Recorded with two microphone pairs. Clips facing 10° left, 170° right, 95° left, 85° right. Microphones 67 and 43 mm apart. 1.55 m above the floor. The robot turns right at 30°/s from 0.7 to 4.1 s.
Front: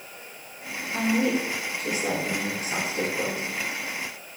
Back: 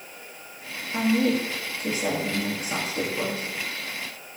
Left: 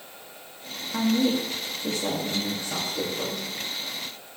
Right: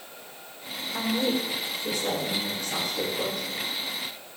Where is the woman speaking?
105° left, 3 m; by 3.4 s straight behind, 3 m.